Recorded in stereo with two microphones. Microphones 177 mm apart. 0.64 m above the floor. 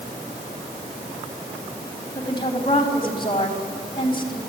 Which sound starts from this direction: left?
A woman speaking, at 2.1 s.